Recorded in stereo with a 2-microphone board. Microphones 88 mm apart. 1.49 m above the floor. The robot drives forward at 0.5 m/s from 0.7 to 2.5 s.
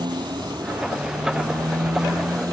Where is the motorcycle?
55° right (ahead or behind); by 2.5 s 45° right (ahead or behind).